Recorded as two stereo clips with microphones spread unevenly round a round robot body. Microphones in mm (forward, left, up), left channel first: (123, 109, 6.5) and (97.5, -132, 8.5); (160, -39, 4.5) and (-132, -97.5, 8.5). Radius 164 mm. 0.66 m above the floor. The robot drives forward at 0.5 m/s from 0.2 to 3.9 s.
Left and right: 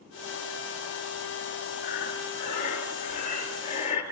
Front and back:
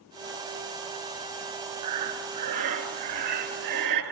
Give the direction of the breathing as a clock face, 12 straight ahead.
7 o'clock.